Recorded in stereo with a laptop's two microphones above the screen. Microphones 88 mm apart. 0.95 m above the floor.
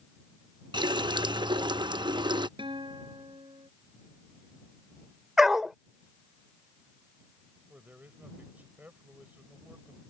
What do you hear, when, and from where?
0.7 s a running tap: 60° right (ahead or behind)
2.6 s a guitar: 70° right (ahead or behind)
5.4 s a dog barking: 5° right (ahead or behind)
7.7 s a man speaking: 20° right (ahead or behind)